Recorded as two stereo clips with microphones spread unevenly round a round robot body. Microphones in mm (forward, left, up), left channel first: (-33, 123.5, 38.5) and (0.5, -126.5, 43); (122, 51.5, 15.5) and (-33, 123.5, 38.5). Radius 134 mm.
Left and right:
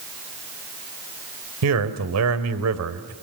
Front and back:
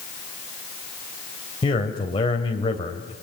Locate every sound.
1.6 s a man speaking: 90° right, 2.5 m